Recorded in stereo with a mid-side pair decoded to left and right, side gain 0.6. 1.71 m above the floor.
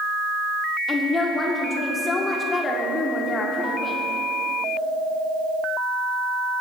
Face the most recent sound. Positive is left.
turn(degrees=30)